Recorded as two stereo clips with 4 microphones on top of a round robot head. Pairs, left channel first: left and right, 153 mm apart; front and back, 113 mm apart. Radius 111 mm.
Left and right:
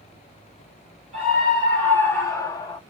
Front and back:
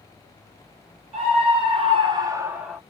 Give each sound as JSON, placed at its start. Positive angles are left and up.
{"t": 1.1, "sound": "a scream", "azimuth_deg": 180, "distance_m": 2.5}